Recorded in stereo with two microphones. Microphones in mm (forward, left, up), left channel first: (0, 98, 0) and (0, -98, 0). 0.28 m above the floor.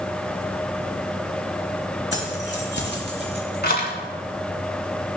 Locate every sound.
2.1 s keys jangling: 70° left (ahead or behind), 3 m; by 3.9 s 50° left (ahead or behind), 2 m